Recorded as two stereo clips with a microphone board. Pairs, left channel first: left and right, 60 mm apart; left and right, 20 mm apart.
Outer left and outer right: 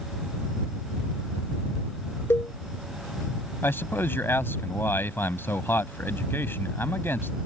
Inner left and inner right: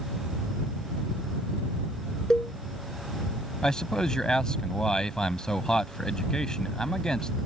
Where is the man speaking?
40° left (ahead or behind).